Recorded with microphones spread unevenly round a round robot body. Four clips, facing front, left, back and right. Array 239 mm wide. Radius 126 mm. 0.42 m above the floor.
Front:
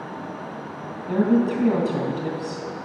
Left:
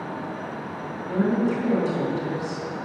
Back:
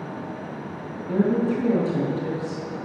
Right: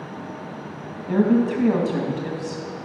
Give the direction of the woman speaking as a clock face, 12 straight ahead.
1 o'clock.